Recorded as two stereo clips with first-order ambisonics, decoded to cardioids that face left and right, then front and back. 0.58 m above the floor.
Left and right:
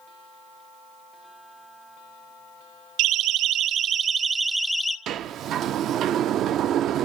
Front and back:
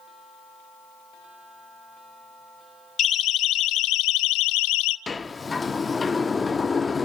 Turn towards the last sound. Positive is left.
turn(degrees=-70)